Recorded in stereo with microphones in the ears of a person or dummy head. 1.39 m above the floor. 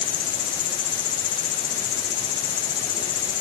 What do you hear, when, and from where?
0.0 s an insect: 20° left (ahead or behind)